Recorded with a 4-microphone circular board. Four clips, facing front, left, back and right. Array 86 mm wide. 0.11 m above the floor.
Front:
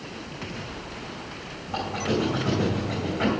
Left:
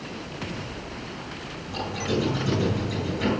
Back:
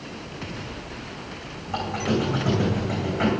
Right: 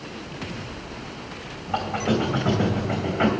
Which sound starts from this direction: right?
A squeak, at 1.7 s.